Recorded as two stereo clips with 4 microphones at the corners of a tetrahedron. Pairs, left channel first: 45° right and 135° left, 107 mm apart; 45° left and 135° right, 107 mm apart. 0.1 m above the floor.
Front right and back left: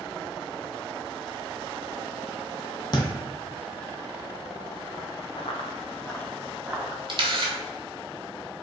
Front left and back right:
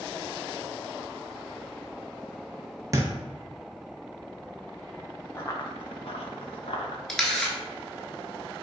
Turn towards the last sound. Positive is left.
turn(degrees=125)